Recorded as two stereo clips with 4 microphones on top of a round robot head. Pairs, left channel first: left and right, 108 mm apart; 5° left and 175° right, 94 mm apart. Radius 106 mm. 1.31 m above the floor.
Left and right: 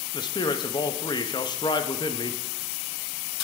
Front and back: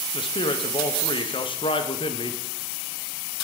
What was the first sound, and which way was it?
A man speaking, 40° left.